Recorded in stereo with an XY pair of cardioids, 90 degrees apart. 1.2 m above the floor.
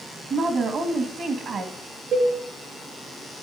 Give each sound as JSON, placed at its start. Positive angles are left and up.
{"t": 0.3, "sound": "a woman speaking", "azimuth_deg": -70, "distance_m": 2.0}
{"t": 2.1, "sound": "a cowbell", "azimuth_deg": -70, "distance_m": 6.5}